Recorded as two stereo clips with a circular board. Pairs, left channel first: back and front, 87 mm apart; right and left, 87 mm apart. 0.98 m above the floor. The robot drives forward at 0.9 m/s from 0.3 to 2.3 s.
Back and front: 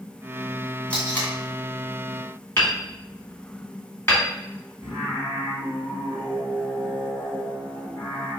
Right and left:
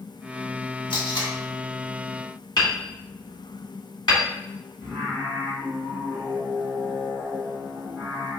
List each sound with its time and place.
0.9 s tape being pulled: 105° right, 1.9 m; by 1.3 s 115° right, 2 m
2.6 s hammering: 120° right, 1.3 m
4.8 s singing: 175° left, 2 m